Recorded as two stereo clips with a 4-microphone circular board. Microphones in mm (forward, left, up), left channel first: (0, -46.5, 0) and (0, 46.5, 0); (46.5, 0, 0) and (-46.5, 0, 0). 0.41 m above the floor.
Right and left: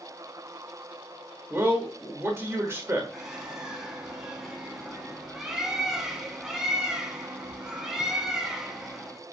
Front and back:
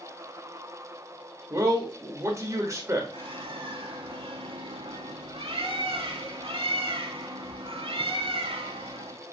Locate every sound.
1.5 s a man speaking: 145° left, 1.0 m
3.1 s a bird: 175° left, 0.6 m